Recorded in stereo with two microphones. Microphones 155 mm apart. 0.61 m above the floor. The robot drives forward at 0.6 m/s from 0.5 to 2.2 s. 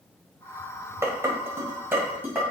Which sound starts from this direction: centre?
Dishes clattering, at 1.0 s.